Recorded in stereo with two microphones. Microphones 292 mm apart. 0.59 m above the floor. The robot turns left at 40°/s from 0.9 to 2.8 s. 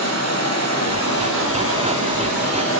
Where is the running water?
120° left, 7 m; by 2.8 s 45° left, 7 m.